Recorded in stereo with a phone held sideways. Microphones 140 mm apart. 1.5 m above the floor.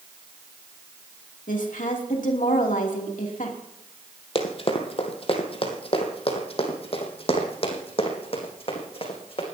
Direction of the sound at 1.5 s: 70° left (ahead or behind).